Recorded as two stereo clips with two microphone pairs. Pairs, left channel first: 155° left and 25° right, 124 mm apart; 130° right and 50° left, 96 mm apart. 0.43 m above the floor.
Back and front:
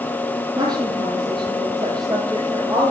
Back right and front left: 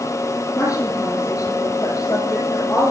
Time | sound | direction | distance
0.6 | a woman speaking | 80° right | 7.5 m